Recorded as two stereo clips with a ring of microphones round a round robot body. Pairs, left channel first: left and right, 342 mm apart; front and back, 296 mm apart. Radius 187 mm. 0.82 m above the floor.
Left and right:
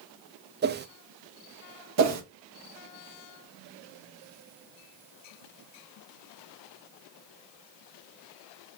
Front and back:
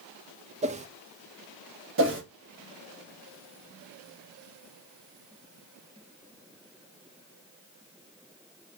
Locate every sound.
0.6 s a whoosh: 130° right, 0.5 m
2.0 s a whoosh: 130° right, 1.3 m